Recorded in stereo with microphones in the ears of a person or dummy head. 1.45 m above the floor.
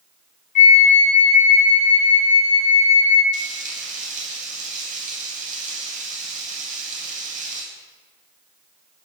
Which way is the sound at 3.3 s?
45° right (ahead or behind).